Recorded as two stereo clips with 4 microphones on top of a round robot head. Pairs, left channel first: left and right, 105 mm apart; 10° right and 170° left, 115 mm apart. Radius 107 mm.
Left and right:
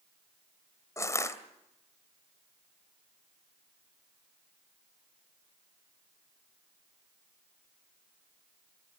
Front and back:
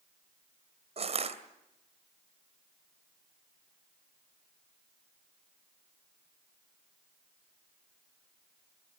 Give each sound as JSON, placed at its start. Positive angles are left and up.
{"t": 1.0, "sound": "crushing", "azimuth_deg": 150, "distance_m": 2.5}